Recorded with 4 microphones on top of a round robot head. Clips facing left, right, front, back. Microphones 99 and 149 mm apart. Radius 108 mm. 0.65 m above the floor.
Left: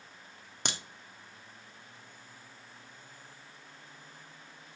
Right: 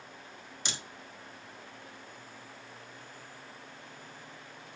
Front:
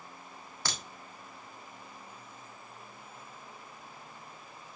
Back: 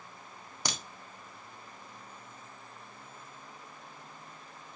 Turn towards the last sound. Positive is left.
turn(degrees=110)